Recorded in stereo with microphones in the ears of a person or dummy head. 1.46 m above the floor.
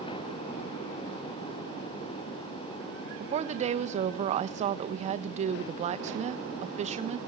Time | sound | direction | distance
3.2 | a woman speaking | 35° right (ahead or behind) | 1.1 m